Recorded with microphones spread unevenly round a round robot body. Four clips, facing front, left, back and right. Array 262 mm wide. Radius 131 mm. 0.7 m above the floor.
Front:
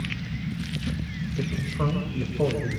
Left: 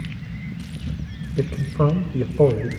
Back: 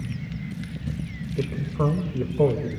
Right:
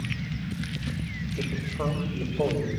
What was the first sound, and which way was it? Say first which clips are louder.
A man speaking: left 10 dB, back 4 dB; 105° left.